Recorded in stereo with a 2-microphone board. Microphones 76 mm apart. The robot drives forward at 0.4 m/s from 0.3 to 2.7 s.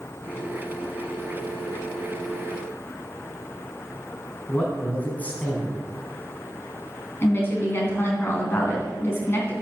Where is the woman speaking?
30° left (ahead or behind), 3.5 m.